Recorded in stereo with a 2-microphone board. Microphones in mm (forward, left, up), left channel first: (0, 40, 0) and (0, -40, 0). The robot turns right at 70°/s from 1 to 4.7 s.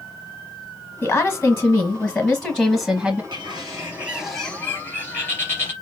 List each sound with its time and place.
1.0 s a woman speaking: 25° left (ahead or behind), 1.1 m; by 3.2 s 20° right (ahead or behind), 1.1 m
3.3 s a bird: 70° right, 2.5 m; by 5.7 s 30° left, 2.5 m